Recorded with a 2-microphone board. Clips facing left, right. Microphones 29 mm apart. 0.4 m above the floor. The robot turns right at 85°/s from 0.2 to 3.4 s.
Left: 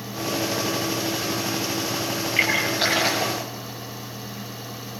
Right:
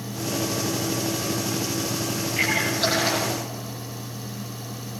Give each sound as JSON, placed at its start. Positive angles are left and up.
{"t": 2.4, "sound": "a splash", "side_deg": 30, "distance_m": 8.5}